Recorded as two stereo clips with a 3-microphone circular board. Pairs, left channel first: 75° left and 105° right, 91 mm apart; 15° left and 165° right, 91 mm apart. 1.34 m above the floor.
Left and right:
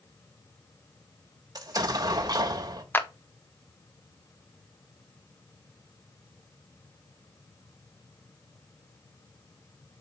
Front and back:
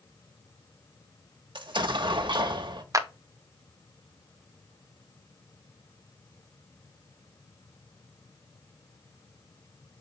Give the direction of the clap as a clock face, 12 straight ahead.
7 o'clock.